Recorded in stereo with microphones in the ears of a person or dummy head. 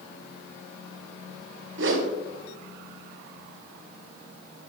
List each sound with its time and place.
1.8 s a whoosh: 65° right (ahead or behind), 1.0 m